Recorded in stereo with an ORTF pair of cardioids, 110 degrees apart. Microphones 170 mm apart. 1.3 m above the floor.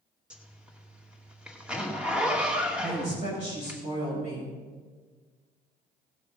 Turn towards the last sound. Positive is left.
turn(degrees=-40)